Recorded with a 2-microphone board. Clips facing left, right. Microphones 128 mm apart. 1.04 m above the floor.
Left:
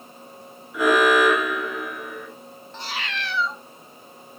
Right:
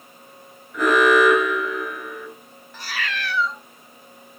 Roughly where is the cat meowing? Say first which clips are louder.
Right 2 dB; left.